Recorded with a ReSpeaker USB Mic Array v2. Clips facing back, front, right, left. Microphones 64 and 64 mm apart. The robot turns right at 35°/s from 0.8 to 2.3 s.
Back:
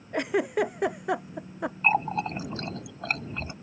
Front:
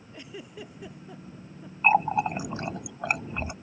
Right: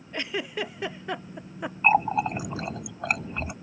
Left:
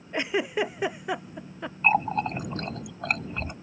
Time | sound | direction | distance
0.1 | a giggle | 160° left | ?
1.8 | a running tap | 40° right | ?